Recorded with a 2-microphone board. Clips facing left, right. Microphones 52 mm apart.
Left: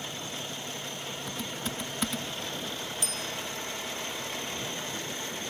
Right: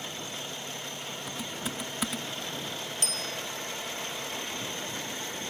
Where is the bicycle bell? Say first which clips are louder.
Even; 60° right (ahead or behind).